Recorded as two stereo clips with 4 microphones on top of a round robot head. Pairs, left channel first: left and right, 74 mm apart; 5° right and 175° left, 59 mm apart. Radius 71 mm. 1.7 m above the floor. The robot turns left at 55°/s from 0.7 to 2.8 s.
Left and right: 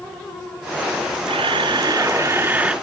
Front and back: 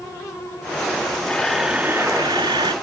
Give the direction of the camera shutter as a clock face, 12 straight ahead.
3 o'clock.